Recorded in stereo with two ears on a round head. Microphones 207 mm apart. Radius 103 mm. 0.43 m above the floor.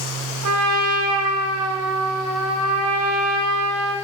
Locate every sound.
0.4 s a trumpet: 80° right, 3 m